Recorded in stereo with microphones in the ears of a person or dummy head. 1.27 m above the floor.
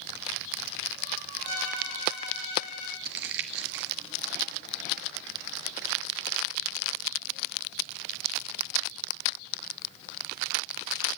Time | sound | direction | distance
1.4 | a violin | 60° left (ahead or behind) | 9.5 m
3.0 | crumpling | 75° right (ahead or behind) | 1.4 m